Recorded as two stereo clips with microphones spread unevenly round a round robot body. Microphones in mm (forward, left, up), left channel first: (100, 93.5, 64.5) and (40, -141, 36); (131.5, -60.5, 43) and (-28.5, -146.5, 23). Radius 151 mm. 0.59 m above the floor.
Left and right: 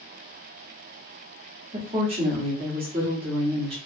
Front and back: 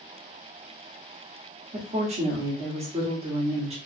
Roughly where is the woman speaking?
Behind right.